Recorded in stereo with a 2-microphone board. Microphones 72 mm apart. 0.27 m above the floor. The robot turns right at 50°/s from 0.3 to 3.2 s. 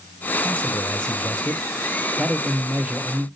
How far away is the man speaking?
About 1.2 m.